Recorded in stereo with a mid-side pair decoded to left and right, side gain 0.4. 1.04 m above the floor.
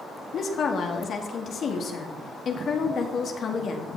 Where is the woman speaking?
60° left, 1.8 m.